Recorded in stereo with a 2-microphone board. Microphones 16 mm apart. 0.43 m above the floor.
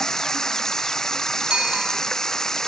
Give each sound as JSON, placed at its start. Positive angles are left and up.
{"t": 0.0, "sound": "running water", "side_deg": 35}
{"t": 1.5, "sound": "a bicycle bell", "side_deg": -75}